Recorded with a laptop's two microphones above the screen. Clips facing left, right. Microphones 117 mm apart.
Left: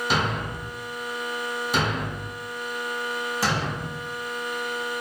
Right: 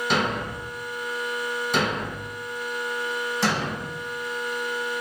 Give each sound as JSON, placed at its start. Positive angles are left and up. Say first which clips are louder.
{"t": 0.1, "sound": "a thud", "louder": "right 1 dB", "side_deg": 5, "distance_m": 1.0}